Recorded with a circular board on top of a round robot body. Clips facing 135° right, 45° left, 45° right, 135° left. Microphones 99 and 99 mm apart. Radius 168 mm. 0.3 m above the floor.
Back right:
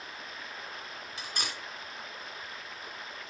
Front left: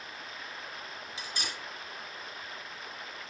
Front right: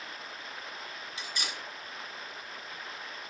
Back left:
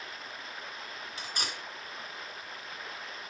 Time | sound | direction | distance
1.2 | cutlery clinking | 175° right | 3 m